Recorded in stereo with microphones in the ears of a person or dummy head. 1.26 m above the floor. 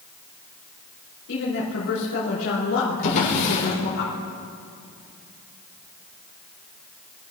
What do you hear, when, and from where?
1.3 s a woman speaking: 85° left, 4 m
3.0 s a drawer: 45° left (ahead or behind), 5.5 m